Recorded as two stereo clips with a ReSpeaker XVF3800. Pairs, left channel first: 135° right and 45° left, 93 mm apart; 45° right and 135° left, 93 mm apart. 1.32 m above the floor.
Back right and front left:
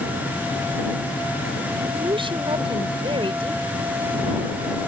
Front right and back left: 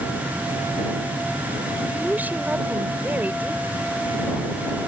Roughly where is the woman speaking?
Ahead left.